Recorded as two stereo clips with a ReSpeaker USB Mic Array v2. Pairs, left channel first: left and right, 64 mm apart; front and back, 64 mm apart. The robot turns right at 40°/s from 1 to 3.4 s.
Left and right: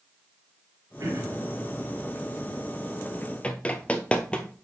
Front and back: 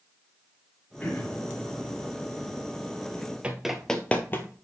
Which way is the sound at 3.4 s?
135° left.